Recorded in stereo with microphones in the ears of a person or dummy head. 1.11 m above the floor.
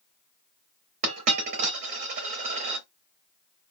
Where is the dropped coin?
40° right (ahead or behind), 1.0 m.